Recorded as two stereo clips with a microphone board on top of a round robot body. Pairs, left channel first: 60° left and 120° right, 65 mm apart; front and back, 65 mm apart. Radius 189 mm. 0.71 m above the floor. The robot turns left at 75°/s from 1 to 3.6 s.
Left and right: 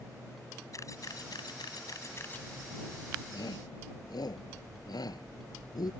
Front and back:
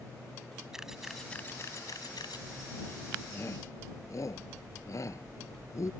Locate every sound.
0.7 s a camera shutter: 95° left; by 2.5 s 15° right
3.3 s a shout: 60° left; by 5.9 s 40° left